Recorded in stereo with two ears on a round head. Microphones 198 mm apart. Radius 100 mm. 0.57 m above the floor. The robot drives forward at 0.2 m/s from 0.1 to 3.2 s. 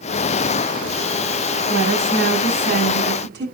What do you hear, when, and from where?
1.7 s a woman speaking: 60° right (ahead or behind), 5 m